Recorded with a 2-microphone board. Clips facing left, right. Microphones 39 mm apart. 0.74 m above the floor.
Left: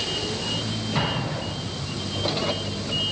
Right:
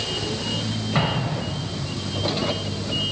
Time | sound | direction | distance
0.9 | an explosion | 30° right (ahead or behind) | 3 m